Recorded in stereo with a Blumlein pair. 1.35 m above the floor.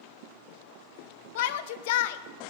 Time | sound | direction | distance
1.4 | a shout | 50° left | 1.0 m